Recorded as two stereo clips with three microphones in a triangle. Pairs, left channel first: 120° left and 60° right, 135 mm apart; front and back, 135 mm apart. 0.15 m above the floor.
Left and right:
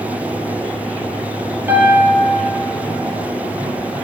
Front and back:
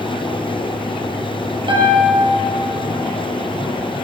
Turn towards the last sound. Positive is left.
turn(degrees=-130)